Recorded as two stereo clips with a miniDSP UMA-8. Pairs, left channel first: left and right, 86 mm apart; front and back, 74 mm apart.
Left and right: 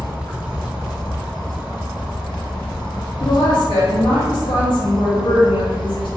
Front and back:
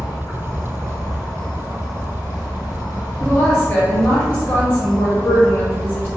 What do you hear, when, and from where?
0.0 s an insect: 15° left, 1.7 m
3.2 s a woman speaking: 65° left, 1.0 m